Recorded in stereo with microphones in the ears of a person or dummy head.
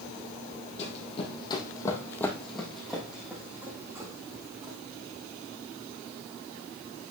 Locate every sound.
0.8 s running footsteps: 35° left (ahead or behind), 3.5 m; by 4.8 s 25° right (ahead or behind), 5 m